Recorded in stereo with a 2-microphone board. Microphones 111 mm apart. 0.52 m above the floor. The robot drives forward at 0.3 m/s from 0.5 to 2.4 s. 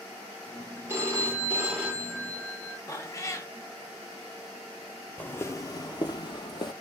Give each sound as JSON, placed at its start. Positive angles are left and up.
{"t": 0.9, "sound": "a phone ringing", "side_deg": -20, "distance_m": 0.8}
{"t": 2.9, "sound": "a cat meowing", "side_deg": 30, "distance_m": 0.6}
{"t": 5.2, "sound": "footsteps", "side_deg": 15, "distance_m": 0.6}